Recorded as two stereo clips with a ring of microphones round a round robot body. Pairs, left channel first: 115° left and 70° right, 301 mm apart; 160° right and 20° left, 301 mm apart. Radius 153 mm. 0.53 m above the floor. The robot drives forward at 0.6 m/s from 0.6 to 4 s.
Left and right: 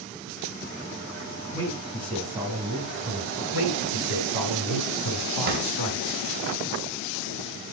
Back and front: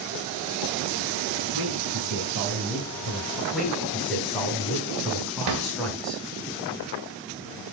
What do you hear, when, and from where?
1.5 s a man speaking: 10° left, 4.5 m; by 3.4 s 15° left, 3.5 m
3.5 s a man speaking: 110° left, 5 m; by 6.2 s 115° left, 5 m
5.5 s a drawer: 5° right, 2 m